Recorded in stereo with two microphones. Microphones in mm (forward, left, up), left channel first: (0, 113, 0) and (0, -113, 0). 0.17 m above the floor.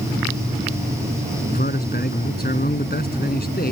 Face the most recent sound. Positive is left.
turn(degrees=45)  # may be behind; listen again after turning